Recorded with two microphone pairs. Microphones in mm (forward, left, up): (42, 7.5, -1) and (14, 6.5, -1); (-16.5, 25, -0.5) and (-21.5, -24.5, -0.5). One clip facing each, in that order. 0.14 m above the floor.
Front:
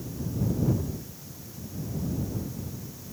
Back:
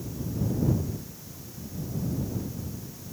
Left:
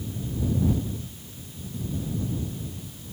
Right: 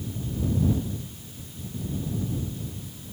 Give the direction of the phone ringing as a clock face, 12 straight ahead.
I don't hear a phone ringing.